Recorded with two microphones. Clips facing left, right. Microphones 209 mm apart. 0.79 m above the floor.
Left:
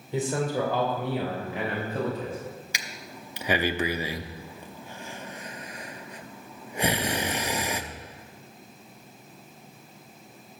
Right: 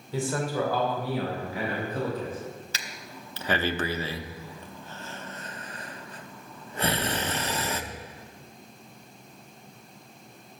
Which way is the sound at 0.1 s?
20° left (ahead or behind).